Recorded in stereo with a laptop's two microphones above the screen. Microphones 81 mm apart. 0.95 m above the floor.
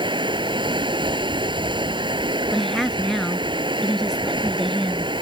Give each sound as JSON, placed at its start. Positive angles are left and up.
{"t": 0.0, "sound": "running water", "side_deg": -80}
{"t": 2.5, "sound": "a woman speaking", "side_deg": 5}